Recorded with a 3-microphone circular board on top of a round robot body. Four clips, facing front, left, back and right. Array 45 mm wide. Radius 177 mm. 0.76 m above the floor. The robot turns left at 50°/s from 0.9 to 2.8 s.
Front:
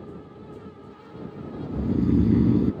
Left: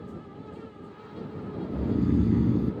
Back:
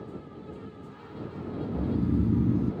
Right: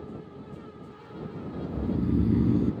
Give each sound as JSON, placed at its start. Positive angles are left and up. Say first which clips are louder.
{"t": 1.7, "sound": "snoring", "louder": "left 2 dB, front 6 dB", "azimuth_deg": 45}